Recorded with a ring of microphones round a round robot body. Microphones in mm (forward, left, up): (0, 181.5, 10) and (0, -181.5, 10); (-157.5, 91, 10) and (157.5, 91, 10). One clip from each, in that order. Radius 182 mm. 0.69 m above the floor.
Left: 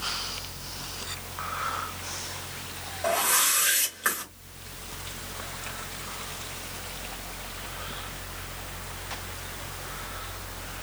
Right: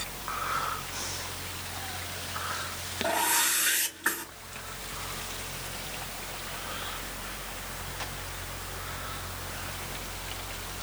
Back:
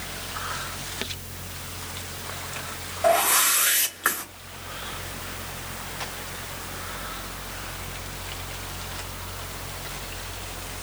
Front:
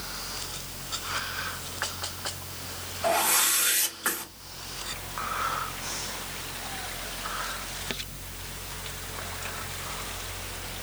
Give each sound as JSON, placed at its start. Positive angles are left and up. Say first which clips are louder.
{"t": 3.0, "sound": "a whoosh", "louder": "left 2 dB, back 4 dB", "azimuth_deg": 120, "distance_m": 3.5}